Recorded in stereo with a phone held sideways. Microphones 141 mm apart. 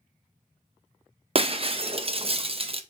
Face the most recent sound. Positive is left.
turn(degrees=-40)  # may be behind; listen again after turning